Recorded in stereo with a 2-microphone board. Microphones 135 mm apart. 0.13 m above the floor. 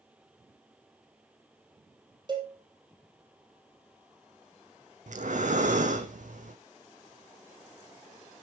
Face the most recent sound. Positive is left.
turn(degrees=-65)  # may be behind; listen again after turning